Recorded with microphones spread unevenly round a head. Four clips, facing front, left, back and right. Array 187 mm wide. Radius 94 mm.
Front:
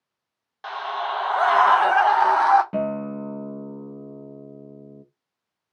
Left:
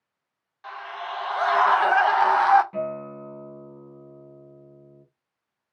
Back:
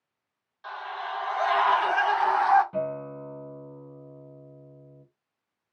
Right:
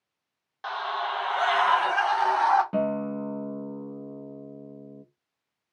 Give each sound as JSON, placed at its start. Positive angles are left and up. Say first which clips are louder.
{"t": 0.6, "sound": "a scream", "louder": "right 5 dB, front 7 dB", "azimuth_deg": -40, "distance_m": 0.7}
{"t": 2.7, "sound": "a guitar", "louder": "right 3 dB, front 5 dB", "azimuth_deg": -40, "distance_m": 0.7}